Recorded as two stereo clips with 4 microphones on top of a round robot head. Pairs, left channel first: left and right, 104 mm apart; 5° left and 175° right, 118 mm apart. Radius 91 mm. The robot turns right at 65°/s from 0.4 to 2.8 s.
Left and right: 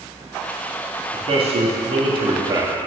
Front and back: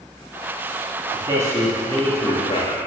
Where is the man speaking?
130° right, 2 m; by 2.8 s 20° right, 2 m.